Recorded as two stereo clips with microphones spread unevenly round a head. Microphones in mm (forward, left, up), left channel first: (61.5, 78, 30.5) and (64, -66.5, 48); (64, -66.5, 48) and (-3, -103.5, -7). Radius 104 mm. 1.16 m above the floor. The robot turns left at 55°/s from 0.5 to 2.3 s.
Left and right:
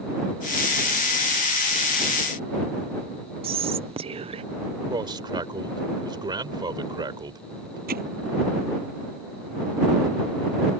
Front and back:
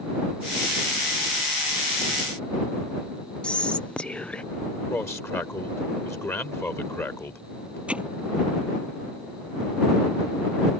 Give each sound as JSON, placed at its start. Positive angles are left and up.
{"t": 3.4, "sound": "whispering", "azimuth_deg": -105}
{"t": 4.9, "sound": "a man speaking", "azimuth_deg": -30}
{"t": 7.9, "sound": "hammering", "azimuth_deg": -75}